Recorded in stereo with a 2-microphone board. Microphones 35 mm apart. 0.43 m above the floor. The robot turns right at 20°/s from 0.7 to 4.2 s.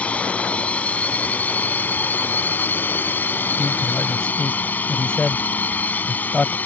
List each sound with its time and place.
0.0 s a drone: 45° left; by 6.7 s 115° left
3.6 s a man speaking: 15° left (ahead or behind); by 6.5 s 30° left (ahead or behind)